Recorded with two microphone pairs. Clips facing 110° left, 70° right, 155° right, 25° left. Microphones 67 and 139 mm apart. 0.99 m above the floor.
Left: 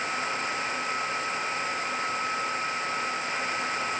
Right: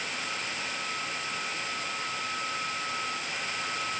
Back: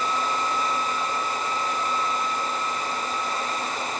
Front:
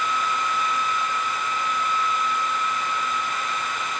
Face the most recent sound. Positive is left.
No sound to turn to.